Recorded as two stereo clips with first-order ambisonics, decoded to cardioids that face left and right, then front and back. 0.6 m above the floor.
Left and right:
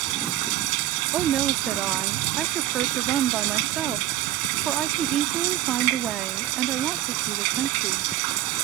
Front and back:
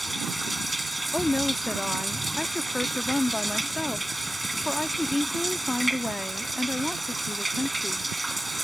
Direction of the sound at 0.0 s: 95° right.